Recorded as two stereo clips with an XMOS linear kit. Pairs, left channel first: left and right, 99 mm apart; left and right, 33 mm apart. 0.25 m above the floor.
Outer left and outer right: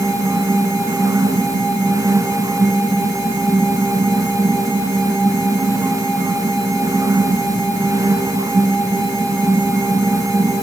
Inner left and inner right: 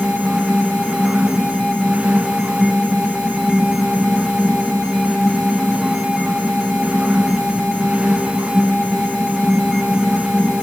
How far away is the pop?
I don't hear a pop.